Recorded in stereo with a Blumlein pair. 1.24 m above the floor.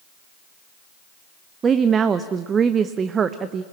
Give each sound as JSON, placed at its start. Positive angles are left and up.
{"t": 1.6, "sound": "a woman speaking", "azimuth_deg": -20, "distance_m": 0.8}